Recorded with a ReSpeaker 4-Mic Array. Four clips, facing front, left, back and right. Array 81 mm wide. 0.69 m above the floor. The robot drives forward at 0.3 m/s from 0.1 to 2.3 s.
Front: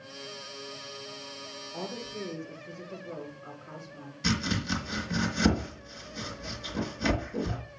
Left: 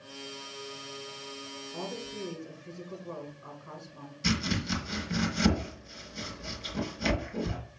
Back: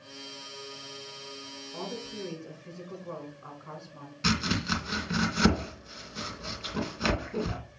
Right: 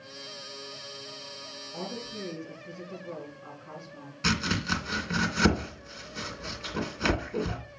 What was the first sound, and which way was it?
A woman speaking, straight behind.